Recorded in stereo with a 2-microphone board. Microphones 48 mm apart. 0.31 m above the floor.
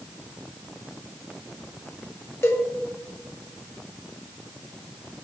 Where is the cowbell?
60° left (ahead or behind), 0.8 m.